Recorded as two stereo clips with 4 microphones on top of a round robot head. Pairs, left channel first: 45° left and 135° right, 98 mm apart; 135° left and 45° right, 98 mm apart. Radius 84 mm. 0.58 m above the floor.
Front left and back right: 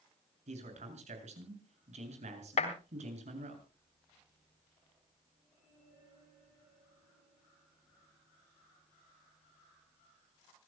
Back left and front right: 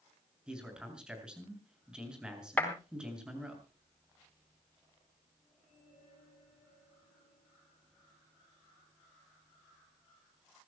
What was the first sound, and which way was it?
A man speaking, 130° right.